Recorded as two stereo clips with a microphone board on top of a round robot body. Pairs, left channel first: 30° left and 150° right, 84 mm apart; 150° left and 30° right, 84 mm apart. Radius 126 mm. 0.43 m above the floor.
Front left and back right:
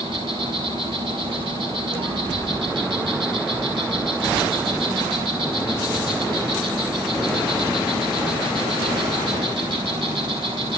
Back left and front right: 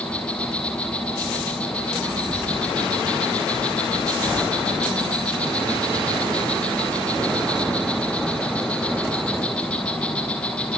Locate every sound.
0.0 s an insect: 130° right, 6.5 m